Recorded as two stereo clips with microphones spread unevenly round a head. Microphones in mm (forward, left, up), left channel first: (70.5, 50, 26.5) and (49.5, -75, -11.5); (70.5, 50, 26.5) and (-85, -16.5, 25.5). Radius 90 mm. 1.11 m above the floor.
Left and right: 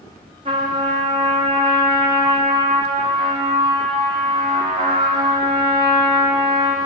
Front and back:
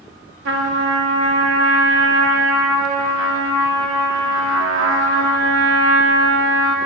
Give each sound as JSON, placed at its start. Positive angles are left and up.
{"t": 0.5, "sound": "a trumpet", "azimuth_deg": -160, "distance_m": 1.7}